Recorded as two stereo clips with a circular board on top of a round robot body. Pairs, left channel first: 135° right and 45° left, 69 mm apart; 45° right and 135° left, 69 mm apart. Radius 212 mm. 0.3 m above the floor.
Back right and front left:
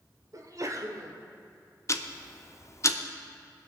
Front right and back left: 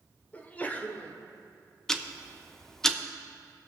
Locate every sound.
0.3 s a sneeze: 20° left, 1.4 m
1.9 s ticking: 125° right, 0.9 m